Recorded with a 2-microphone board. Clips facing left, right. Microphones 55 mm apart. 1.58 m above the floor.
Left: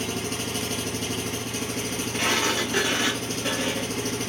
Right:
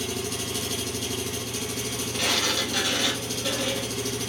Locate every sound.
0.0 s an engine running: 40° left (ahead or behind), 0.8 m
2.1 s a sliding door: 30° left (ahead or behind), 0.9 m